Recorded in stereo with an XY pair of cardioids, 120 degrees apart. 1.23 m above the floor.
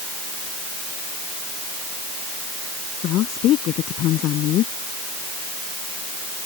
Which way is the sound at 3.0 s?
70° left.